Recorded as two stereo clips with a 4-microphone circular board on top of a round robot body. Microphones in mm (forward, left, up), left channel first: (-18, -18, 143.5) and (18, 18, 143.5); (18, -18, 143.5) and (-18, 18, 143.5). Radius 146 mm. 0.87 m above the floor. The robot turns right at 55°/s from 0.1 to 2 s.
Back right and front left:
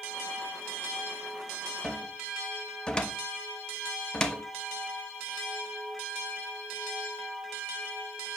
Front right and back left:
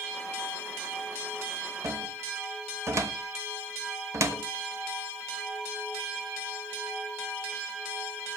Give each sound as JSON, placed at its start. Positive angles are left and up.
{"t": 1.8, "sound": "a cupboard door", "azimuth_deg": 145, "distance_m": 1.5}